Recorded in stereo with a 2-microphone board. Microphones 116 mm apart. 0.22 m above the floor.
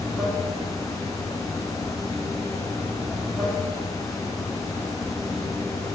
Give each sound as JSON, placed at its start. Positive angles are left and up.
{"t": 0.0, "sound": "running water", "side_deg": 5, "distance_m": 0.8}